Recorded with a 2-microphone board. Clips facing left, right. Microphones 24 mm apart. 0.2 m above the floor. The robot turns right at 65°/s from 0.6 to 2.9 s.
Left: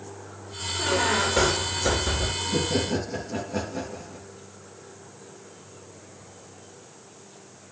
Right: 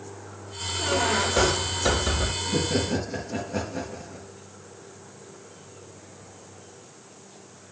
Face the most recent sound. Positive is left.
turn(degrees=-15)